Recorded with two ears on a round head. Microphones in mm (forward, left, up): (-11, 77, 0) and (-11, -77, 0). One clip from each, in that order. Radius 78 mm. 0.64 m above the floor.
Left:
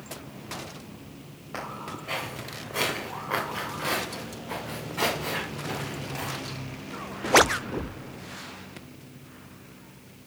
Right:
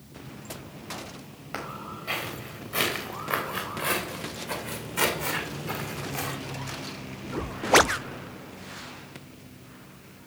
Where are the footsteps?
50° right (ahead or behind), 4 m.